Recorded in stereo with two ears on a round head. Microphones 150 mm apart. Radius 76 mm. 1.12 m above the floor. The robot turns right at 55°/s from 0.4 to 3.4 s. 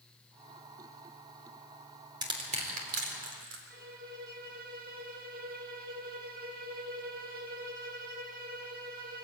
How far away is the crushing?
About 3.5 m.